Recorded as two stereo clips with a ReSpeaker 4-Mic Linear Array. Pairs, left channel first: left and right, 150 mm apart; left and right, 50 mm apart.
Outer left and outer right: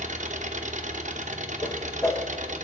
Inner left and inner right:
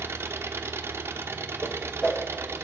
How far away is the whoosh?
About 1.0 m.